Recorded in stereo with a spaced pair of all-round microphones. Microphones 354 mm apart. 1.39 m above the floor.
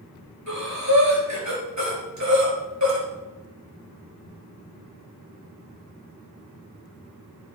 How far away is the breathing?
About 5 m.